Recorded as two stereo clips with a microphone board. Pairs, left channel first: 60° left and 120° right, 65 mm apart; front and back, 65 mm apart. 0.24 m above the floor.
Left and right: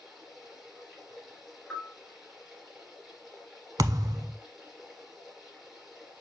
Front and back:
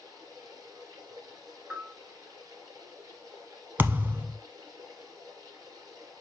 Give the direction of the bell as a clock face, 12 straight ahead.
7 o'clock.